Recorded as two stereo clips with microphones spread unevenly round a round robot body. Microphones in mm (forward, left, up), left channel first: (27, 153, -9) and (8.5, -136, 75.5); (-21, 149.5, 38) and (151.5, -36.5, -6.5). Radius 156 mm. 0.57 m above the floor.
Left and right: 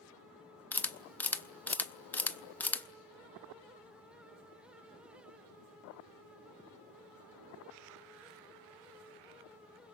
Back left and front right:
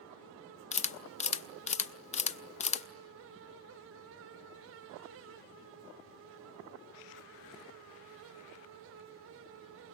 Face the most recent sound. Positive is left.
turn(degrees=85)